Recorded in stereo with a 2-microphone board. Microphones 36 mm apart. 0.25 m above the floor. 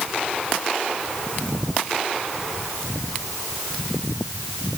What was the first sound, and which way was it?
Only background noise.